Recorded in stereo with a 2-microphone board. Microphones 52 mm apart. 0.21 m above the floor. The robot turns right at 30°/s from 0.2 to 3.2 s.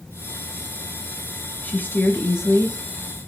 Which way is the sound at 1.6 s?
35° left.